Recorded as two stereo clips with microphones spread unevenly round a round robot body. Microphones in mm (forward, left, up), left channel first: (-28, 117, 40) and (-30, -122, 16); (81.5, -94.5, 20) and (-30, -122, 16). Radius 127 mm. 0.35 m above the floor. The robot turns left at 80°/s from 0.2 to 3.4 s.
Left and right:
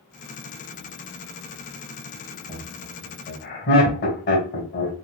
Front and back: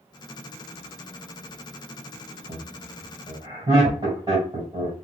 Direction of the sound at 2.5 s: 160° right.